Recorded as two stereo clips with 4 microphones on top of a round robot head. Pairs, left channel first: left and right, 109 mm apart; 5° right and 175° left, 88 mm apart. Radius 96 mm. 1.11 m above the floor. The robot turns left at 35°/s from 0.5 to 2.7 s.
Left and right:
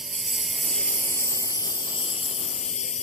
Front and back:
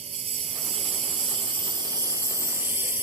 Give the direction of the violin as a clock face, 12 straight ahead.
I don't hear a violin.